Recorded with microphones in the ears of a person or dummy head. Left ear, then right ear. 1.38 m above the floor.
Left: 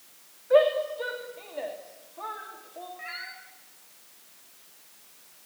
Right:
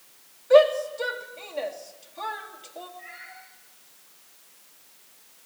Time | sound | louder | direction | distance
0.5 | a shout | right 4 dB | 80° right | 3.5 m
3.0 | a cat meowing | left 5 dB | 70° left (ahead or behind) | 8 m